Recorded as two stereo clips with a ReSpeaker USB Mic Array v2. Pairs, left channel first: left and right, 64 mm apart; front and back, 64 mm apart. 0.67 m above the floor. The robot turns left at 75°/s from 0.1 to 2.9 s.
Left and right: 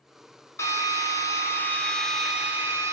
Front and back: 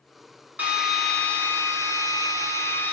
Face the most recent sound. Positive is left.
turn(degrees=-55)